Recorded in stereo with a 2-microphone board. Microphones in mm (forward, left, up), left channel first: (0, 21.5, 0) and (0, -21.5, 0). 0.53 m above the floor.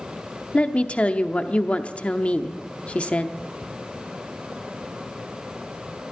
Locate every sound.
0.5 s a woman speaking: 30° left (ahead or behind), 0.8 m